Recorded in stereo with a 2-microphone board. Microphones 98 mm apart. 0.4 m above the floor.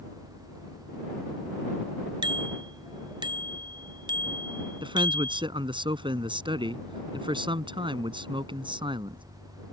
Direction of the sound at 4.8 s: 60° right (ahead or behind).